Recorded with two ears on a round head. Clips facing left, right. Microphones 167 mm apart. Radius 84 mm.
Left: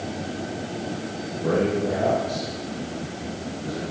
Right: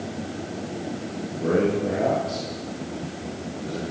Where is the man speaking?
45° right (ahead or behind), 9 m; by 3.8 s 40° right (ahead or behind), 11 m.